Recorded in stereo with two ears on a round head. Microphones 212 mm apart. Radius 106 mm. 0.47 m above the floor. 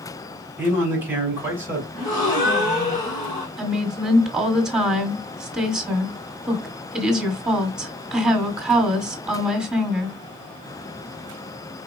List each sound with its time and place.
0.6 s a man speaking: 10° right (ahead or behind), 4 m
1.9 s a gasp: 20° left (ahead or behind), 3.5 m
3.6 s a woman speaking: 5° right (ahead or behind), 1.5 m